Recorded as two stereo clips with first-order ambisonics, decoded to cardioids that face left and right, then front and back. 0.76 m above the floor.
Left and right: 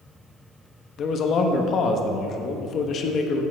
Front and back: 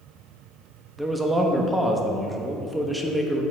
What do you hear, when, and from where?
1.0 s a man speaking: 100° left, 0.9 m